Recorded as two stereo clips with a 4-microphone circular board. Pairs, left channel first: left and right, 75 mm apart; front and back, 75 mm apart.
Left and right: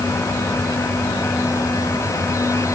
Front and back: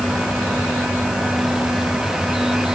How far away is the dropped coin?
No dropped coin in this recording.